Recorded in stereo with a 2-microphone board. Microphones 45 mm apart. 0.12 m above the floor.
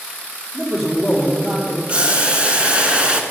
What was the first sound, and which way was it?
A man speaking, centre (ahead or behind).